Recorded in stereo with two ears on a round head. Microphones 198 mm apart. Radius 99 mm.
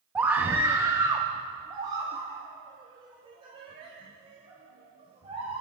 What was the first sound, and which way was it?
A scream, 5° right (ahead or behind).